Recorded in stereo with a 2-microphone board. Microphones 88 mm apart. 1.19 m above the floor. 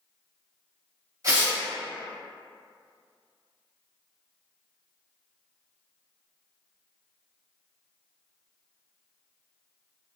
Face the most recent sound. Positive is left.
turn(degrees=-40)  # may be behind; listen again after turning